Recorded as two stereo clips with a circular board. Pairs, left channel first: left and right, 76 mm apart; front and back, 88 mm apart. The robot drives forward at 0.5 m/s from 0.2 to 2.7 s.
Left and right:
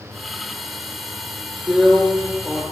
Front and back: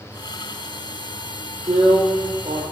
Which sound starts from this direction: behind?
A drill, at 1.7 s.